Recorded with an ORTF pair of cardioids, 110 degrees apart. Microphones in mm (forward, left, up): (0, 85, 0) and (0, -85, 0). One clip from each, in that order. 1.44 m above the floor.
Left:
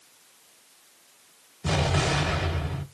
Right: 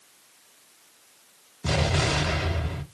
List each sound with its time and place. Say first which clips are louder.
1.6 s an explosion: even; 15° right, 1.1 m